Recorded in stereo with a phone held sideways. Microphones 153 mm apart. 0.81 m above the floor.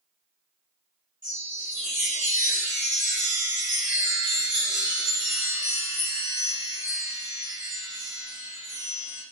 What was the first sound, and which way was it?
A chime, 55° right (ahead or behind).